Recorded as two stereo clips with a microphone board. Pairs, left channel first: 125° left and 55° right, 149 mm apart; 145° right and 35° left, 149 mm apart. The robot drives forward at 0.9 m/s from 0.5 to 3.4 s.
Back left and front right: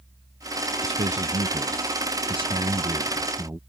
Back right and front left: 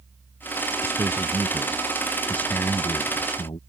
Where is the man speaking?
35° right; by 3.6 s 115° right.